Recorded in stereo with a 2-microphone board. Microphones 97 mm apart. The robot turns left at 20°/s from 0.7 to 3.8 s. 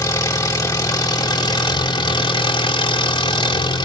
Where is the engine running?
140° left, 1.9 m; by 3.9 s 75° left, 1.9 m.